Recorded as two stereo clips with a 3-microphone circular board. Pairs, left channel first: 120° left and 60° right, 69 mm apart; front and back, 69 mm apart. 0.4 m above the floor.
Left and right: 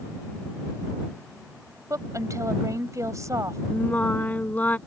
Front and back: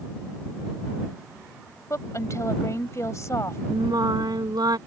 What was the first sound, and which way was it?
A woman speaking, 35° right.